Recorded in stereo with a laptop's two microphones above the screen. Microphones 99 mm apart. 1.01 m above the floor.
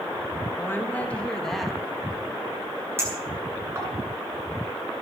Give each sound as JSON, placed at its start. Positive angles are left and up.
{"t": 0.6, "sound": "a woman speaking", "side_deg": 25, "distance_m": 1.4}
{"t": 3.0, "sound": "a clink", "side_deg": -25, "distance_m": 9.0}